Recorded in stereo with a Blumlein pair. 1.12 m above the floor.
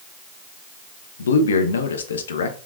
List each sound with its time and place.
1.2 s a man speaking: 65° left, 0.5 m